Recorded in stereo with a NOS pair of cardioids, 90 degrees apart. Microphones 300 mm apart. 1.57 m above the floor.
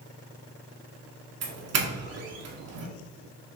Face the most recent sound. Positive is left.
turn(degrees=-55)